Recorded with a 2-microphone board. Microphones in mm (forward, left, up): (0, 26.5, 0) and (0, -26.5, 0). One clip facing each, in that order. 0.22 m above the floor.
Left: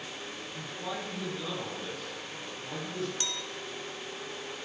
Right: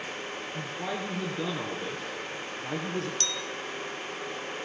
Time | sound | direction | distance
0.5 | a man speaking | 60° right (ahead or behind) | 3.5 m
3.2 | a clink | 10° left (ahead or behind) | 0.5 m